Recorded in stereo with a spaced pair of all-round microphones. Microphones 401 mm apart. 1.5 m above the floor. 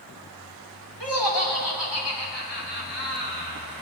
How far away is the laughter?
About 4.5 m.